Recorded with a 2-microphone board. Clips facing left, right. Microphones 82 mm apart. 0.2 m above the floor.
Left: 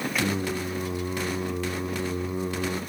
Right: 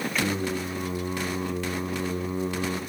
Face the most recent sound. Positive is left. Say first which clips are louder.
# even
turn(degrees=5)  # may be behind; listen again after turning